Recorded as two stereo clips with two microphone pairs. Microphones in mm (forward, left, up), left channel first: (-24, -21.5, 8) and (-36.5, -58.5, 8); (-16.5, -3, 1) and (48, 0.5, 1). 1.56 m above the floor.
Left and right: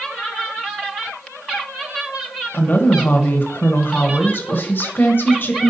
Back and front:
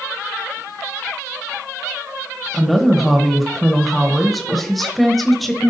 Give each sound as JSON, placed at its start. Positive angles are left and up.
{"t": 2.5, "sound": "a woman speaking", "azimuth_deg": 95, "distance_m": 0.9}